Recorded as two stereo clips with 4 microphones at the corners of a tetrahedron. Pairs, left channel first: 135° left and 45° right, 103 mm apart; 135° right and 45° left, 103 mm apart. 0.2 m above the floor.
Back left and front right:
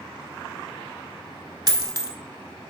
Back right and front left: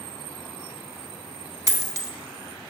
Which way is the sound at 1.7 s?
5° right.